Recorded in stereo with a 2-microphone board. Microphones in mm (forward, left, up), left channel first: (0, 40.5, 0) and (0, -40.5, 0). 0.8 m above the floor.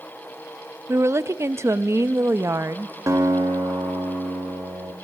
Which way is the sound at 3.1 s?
45° right (ahead or behind).